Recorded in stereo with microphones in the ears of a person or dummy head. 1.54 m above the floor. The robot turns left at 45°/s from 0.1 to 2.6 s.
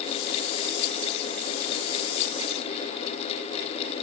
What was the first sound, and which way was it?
Only background noise.